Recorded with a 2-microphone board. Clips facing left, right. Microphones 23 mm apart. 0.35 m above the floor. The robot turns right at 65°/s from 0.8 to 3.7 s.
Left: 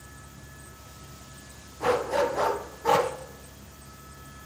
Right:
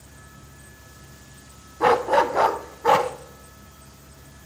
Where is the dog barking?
105° right, 0.6 m; by 3.1 s 20° right, 0.6 m.